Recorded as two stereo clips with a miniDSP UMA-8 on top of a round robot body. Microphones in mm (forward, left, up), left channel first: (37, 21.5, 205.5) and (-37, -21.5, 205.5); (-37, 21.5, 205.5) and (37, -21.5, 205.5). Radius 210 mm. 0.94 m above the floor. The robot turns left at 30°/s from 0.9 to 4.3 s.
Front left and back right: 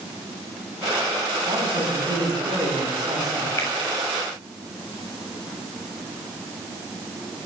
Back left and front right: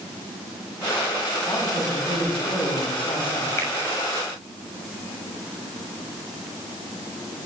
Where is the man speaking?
150° right, 9 m; by 3.5 s 150° left, 9 m.